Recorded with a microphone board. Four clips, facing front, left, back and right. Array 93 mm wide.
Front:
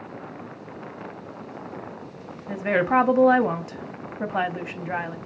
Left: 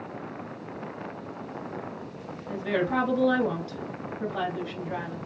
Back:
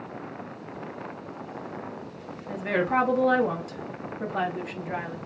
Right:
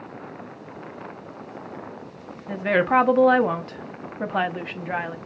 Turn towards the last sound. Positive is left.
turn(degrees=-65)